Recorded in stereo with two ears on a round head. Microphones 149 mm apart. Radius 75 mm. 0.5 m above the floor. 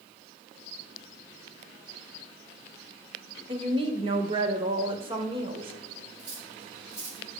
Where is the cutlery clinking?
80° right, 2.5 m.